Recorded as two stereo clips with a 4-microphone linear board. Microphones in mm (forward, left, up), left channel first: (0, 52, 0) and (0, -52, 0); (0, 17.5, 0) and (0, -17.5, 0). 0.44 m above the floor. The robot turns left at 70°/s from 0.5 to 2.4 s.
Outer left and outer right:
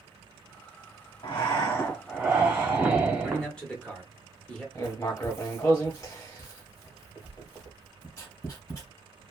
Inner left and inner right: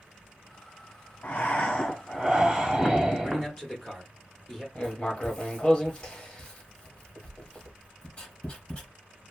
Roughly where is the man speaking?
Centre.